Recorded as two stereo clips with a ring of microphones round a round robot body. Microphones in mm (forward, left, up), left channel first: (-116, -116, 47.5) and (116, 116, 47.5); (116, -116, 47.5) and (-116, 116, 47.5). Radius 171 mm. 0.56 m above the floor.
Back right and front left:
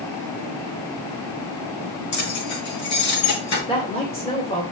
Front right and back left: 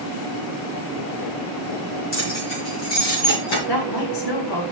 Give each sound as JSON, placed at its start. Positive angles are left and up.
{"t": 2.1, "sound": "keys jangling", "azimuth_deg": -100, "distance_m": 5.5}
{"t": 3.7, "sound": "a woman speaking", "azimuth_deg": -60, "distance_m": 2.5}